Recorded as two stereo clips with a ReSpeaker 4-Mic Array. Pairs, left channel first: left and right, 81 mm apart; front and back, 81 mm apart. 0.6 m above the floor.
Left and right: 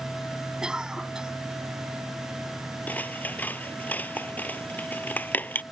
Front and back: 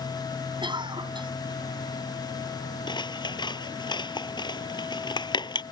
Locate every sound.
0.6 s a cough: 170° right
2.9 s scissors: 20° left